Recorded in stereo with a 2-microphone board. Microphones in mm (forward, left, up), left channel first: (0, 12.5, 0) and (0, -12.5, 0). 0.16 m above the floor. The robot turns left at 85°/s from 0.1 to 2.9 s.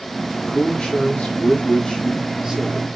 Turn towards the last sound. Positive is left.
turn(degrees=-60)